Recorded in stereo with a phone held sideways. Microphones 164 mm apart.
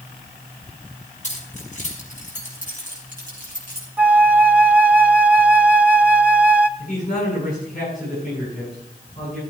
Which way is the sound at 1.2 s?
45° left (ahead or behind).